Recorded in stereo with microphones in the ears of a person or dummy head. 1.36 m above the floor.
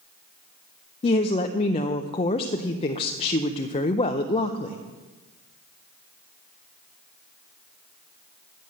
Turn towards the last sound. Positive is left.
turn(degrees=30)  # may be behind; listen again after turning